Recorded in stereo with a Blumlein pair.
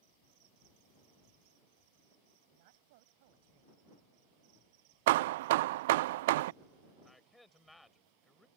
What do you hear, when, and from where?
2.5 s a woman speaking: 50° right
5.1 s hammering: 55° right
7.0 s a man speaking: 5° left